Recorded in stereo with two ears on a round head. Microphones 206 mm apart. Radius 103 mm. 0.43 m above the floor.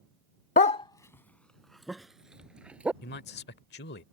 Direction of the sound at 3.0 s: 45° left (ahead or behind).